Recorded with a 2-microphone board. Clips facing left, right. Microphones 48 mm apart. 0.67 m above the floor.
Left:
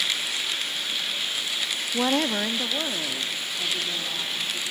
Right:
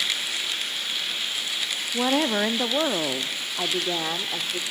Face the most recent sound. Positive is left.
turn(degrees=-65)  # may be behind; listen again after turning